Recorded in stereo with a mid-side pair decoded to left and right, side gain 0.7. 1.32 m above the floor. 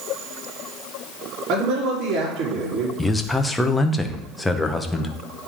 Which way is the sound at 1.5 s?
45° right.